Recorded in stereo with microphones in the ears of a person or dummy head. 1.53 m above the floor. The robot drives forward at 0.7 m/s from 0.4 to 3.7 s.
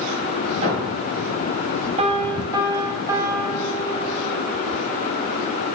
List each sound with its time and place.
0.6 s a thud: 40° right (ahead or behind), 2.5 m; by 1.2 s 45° right (ahead or behind), 2.5 m
2.0 s a piano: 30° right (ahead or behind), 0.5 m; by 4.5 s 10° right (ahead or behind), 1.6 m